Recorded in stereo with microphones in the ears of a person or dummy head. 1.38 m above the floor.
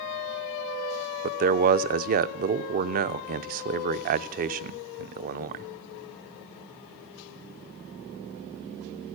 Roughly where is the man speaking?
Right.